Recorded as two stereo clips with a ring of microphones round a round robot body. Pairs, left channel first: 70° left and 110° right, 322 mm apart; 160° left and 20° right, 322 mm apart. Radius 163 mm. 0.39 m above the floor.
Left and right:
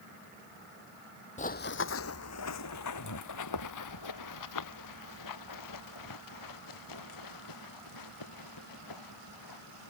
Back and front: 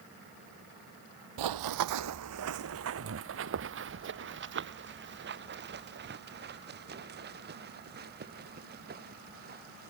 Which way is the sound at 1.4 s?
Straight ahead.